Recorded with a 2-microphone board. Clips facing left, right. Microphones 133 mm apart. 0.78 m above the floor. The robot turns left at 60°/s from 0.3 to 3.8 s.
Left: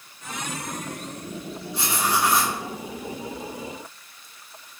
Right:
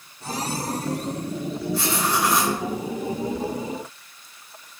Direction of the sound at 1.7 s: 40° left.